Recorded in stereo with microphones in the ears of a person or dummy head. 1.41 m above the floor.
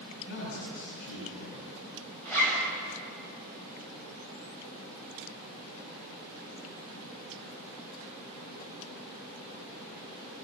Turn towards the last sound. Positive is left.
turn(degrees=10)  # may be behind; listen again after turning